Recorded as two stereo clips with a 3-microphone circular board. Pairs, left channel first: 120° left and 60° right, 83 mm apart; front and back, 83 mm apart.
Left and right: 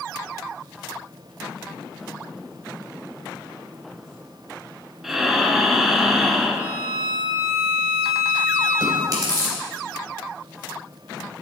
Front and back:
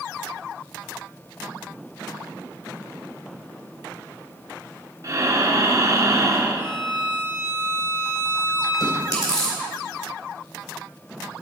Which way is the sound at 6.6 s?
130° right.